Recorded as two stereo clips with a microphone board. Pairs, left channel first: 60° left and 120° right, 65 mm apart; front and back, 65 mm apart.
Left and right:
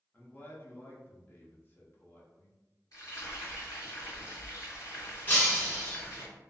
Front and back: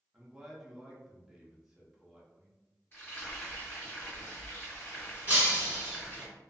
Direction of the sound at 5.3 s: 120° left.